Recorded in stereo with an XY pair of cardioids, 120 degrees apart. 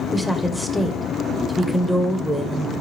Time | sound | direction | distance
0.1 | a woman speaking | straight ahead | 1.4 m